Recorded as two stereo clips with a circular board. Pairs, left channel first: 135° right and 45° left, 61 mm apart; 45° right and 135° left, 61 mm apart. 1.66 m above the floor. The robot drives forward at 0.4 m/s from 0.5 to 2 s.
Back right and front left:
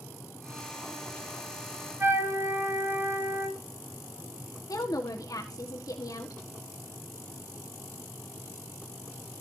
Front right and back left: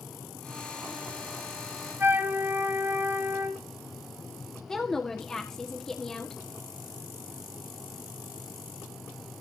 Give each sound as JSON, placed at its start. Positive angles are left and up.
{"t": 2.0, "sound": "a flute", "azimuth_deg": 85, "distance_m": 3.5}
{"t": 4.7, "sound": "a woman speaking", "azimuth_deg": -125, "distance_m": 1.5}